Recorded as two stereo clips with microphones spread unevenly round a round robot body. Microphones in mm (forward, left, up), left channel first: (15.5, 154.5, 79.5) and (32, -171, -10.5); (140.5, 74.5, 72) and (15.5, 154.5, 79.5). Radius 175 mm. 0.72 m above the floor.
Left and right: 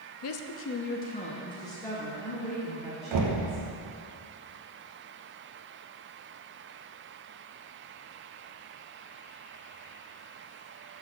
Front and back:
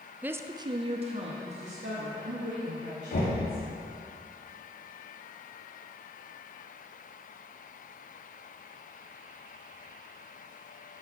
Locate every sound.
0.2 s a woman speaking: 70° left, 0.5 m; by 3.6 s 170° right, 1.7 m
3.1 s knocking: 75° right, 0.9 m